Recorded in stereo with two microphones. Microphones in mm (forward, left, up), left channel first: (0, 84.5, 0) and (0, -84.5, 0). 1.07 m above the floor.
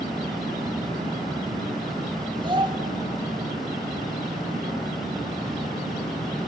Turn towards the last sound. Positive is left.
turn(degrees=-30)  # may be behind; listen again after turning